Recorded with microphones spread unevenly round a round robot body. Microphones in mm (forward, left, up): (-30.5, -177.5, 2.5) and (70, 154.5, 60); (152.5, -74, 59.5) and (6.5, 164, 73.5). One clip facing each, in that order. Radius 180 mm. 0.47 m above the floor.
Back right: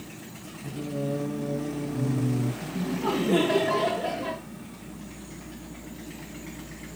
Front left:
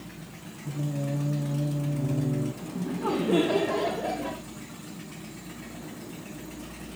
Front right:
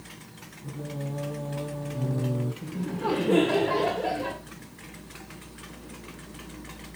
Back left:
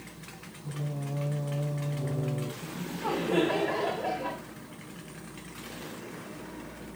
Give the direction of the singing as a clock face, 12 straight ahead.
2 o'clock.